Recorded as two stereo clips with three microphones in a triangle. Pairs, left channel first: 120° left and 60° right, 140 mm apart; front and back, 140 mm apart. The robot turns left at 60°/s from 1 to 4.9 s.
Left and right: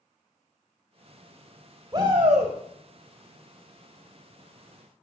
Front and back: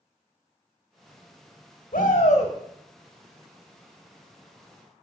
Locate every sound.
1.9 s a shout: 5° right, 2.5 m; by 2.5 s 45° right, 2.5 m